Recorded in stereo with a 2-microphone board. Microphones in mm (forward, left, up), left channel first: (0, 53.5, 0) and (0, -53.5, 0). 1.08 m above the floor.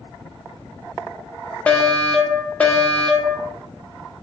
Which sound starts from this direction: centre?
A fire alarm, at 1.7 s.